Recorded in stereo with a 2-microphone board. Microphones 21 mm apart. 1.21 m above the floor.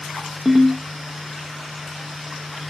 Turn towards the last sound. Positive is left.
turn(degrees=-40)  # may be behind; listen again after turning